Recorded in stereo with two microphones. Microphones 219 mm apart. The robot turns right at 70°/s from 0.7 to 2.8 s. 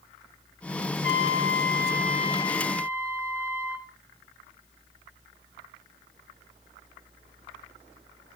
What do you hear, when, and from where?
1.0 s a trumpet: 65° left, 4.5 m; by 3.9 s 170° right, 4.5 m